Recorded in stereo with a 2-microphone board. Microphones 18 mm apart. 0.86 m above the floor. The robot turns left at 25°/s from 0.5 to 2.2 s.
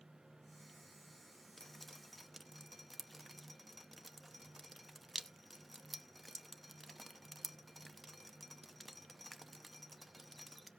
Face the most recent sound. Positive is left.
turn(degrees=10)  # may be behind; listen again after turning